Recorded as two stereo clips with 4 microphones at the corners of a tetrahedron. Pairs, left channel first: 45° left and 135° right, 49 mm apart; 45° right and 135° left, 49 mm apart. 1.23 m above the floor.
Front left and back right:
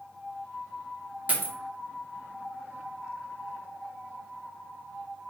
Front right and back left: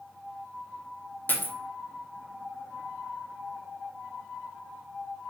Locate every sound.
1.3 s a dropped coin: 85° right, 0.7 m